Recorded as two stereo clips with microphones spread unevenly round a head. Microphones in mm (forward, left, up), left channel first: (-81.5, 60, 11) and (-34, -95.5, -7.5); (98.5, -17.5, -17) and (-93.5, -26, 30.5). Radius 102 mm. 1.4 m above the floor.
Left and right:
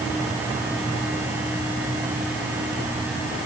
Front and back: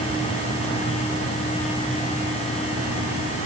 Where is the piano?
No piano in this recording.